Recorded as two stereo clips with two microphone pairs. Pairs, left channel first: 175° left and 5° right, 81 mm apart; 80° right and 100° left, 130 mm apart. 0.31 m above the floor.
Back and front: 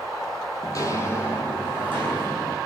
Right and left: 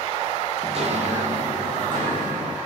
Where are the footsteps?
140° left, 0.5 m; by 2.6 s 105° left, 1.8 m.